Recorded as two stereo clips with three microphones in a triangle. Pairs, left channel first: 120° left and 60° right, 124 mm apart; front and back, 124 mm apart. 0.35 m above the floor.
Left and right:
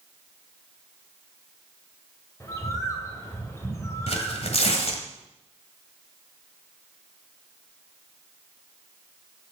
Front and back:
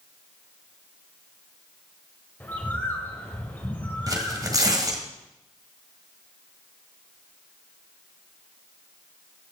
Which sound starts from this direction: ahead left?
A bird, at 2.4 s.